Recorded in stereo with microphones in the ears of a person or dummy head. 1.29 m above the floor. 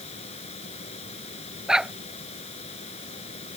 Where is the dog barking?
Centre (ahead or behind).